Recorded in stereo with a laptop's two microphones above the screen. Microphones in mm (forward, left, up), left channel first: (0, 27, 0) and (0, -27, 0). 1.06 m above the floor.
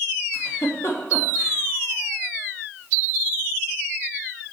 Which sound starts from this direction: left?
A giggle, at 0.3 s.